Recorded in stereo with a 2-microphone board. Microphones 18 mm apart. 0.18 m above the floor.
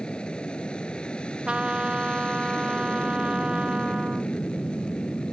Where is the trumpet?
85° right.